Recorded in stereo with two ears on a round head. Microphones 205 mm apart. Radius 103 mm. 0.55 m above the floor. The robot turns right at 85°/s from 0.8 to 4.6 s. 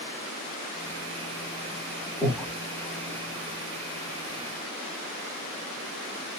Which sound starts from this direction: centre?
Breathing, at 2.2 s.